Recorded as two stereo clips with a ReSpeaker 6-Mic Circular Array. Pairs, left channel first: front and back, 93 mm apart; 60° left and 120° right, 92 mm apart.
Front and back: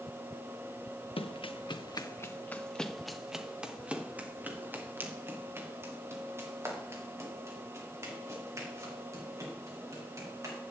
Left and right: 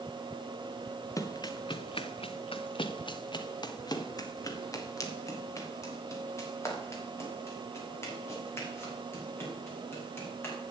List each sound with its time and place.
1.2 s running footsteps: 10° left, 0.9 m; by 10.6 s 125° left, 6 m